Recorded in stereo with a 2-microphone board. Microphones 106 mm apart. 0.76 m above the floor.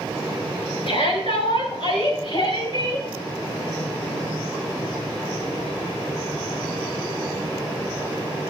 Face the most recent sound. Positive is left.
turn(degrees=50)  # may be behind; listen again after turning